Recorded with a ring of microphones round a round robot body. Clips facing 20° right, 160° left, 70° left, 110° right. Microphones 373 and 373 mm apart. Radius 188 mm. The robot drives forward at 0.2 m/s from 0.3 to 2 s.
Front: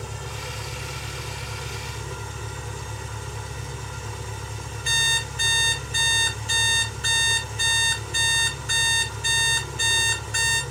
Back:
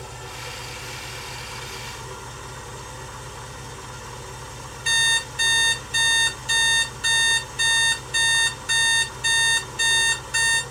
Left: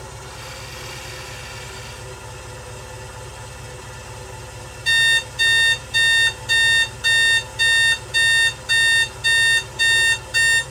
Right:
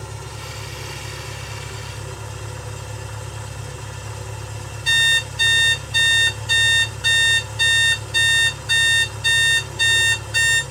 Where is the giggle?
No giggle in this recording.